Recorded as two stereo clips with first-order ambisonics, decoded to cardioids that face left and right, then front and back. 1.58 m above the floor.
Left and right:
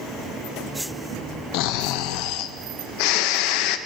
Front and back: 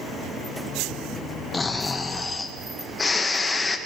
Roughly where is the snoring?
Left.